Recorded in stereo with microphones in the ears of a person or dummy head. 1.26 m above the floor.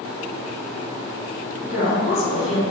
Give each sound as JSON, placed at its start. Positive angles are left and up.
{"t": 1.6, "sound": "a woman speaking", "side_deg": 80, "distance_m": 1.1}